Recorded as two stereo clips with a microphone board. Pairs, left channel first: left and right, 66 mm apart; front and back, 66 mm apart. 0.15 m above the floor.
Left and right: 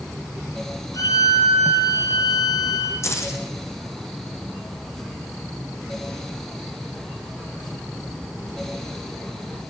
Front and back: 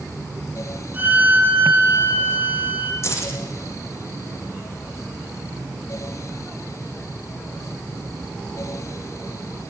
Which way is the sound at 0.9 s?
115° left.